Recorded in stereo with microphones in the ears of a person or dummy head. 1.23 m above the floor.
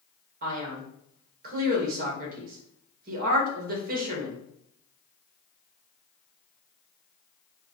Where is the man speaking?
50° right (ahead or behind), 1.5 m.